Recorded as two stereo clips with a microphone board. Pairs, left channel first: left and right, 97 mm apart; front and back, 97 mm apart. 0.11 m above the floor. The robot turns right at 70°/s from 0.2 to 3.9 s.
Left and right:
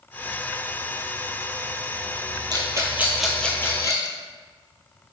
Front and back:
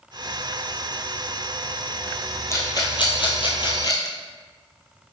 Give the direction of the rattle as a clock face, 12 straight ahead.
2 o'clock.